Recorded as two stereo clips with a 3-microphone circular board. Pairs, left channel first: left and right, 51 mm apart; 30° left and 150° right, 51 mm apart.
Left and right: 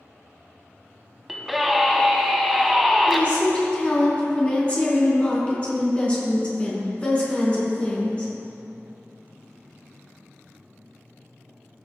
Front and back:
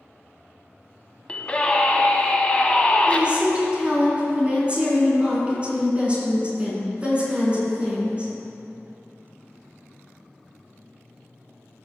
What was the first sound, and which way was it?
A scream, 10° right.